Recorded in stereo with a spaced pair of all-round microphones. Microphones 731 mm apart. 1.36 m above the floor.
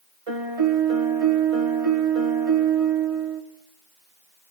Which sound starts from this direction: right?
A piano, at 0.3 s.